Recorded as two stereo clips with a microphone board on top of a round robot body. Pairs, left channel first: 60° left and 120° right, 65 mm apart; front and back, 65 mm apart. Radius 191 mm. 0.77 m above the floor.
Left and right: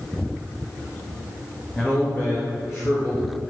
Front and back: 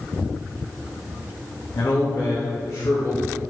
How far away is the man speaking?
About 1.1 m.